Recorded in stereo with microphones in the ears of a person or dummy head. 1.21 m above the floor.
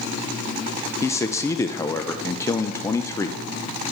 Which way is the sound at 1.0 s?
15° left (ahead or behind).